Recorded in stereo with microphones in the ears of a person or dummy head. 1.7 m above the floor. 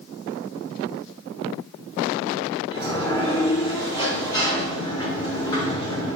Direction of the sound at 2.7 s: 20° left (ahead or behind).